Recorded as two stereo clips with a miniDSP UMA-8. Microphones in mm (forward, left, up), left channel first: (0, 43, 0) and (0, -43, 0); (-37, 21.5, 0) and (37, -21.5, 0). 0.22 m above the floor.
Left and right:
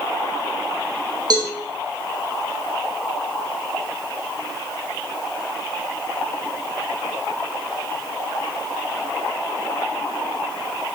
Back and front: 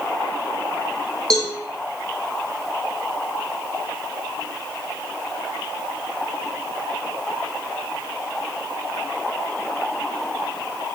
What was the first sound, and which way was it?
A cowbell, 130° right.